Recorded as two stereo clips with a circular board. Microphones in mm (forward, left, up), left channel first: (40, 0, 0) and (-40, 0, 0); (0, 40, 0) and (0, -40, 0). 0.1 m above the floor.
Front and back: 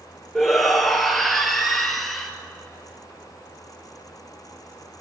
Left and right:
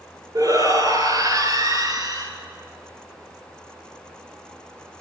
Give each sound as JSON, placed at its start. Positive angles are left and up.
{"t": 0.3, "sound": "a shout", "azimuth_deg": -85, "distance_m": 2.0}